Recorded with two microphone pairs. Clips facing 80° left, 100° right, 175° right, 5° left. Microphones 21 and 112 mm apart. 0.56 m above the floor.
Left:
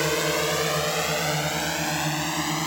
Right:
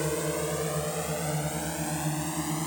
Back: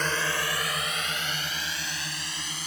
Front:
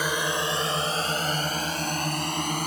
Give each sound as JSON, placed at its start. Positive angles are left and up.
{"t": 0.0, "sound": "a drone", "azimuth_deg": 85}